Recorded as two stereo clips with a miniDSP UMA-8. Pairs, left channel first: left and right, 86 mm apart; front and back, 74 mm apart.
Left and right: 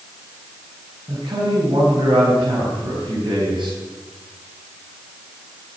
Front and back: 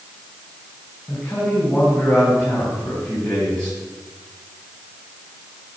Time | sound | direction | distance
1.1 | a man speaking | 80° right | 4.5 m